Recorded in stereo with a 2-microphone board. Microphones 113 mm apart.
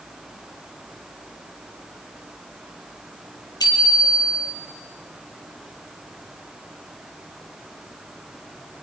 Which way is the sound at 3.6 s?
35° left (ahead or behind).